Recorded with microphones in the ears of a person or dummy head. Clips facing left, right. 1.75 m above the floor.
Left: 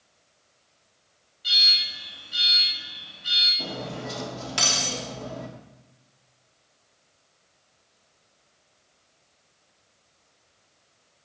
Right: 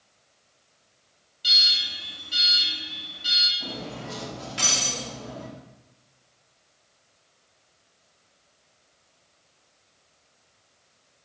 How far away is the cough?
I don't hear a cough.